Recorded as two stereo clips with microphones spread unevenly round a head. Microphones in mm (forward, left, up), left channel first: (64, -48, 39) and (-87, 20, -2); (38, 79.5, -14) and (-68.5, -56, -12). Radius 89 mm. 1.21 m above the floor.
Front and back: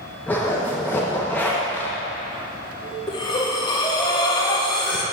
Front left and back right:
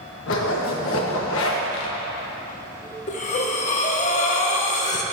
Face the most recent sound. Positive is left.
turn(degrees=20)